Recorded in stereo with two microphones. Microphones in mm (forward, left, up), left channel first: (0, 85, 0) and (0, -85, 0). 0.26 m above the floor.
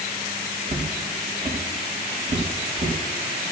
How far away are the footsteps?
About 2.5 m.